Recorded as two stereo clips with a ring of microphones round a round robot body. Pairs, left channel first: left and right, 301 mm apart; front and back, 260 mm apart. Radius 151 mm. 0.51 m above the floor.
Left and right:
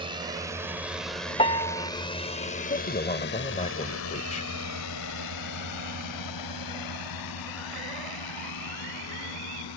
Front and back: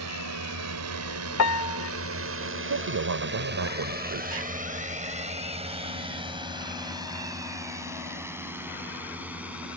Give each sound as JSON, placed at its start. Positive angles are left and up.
{"t": 0.0, "sound": "a drone", "azimuth_deg": -165}
{"t": 1.4, "sound": "a piano", "azimuth_deg": 20}
{"t": 2.7, "sound": "a man speaking", "azimuth_deg": 155}